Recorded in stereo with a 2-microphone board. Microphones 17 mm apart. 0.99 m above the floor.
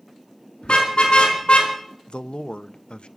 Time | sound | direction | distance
0.6 | a car horn | 70° left (ahead or behind) | 5 m
2.1 | a man speaking | 75° left (ahead or behind) | 0.6 m